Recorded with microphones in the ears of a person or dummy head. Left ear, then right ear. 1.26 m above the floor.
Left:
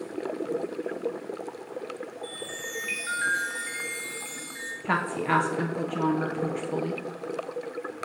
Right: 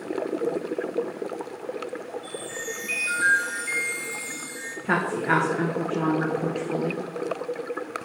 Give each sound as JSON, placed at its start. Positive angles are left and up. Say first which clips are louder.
{"t": 2.2, "sound": "a chime", "louder": "right 2 dB", "side_deg": 40, "distance_m": 1.5}
{"t": 4.8, "sound": "a woman speaking", "louder": "right 3 dB", "side_deg": 20, "distance_m": 0.6}